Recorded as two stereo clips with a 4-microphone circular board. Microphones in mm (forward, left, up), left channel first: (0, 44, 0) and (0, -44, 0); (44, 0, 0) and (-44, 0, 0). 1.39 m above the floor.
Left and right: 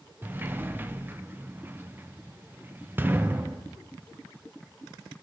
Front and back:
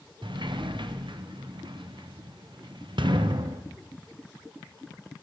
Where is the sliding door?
155° right, 0.7 m.